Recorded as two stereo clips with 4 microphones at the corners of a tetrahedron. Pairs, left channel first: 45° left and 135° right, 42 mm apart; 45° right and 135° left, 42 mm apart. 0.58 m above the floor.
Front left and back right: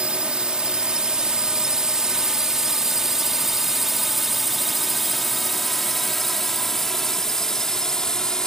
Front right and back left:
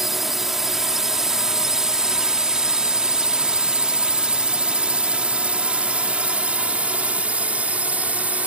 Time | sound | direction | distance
0.0 | a drone | 150° right | ?